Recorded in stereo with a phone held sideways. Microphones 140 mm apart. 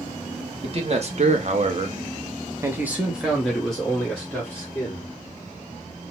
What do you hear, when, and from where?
0.6 s a man speaking: 45° right (ahead or behind), 0.9 m; by 5.1 s 10° left (ahead or behind), 1.7 m